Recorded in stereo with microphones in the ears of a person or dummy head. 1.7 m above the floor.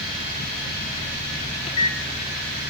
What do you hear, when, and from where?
1.7 s a microwave: 30° left (ahead or behind), 0.5 m